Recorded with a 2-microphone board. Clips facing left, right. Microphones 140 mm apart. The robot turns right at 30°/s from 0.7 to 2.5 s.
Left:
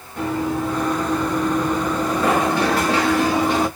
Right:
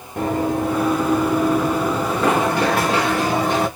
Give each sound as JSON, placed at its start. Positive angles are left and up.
{"t": 0.2, "sound": "running footsteps", "side_deg": -50, "distance_m": 1.8}